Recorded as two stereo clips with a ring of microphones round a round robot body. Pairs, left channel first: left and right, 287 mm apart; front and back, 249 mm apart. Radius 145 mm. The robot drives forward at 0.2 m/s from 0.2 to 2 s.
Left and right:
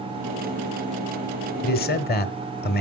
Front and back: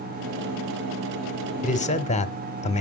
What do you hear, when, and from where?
1.6 s a man speaking: 45° left, 1.2 m; by 2.8 s 50° left, 1.2 m